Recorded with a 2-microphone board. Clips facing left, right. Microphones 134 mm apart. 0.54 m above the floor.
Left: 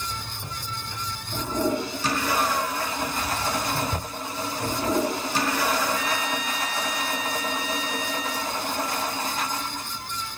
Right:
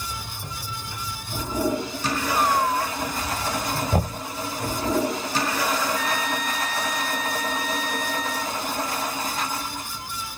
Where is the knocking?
65° right (ahead or behind).